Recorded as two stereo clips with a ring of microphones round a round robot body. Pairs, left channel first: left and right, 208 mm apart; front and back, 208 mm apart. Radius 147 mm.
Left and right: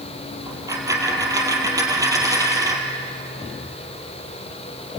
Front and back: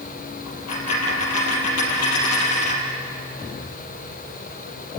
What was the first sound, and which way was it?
A dropped coin, 15° right.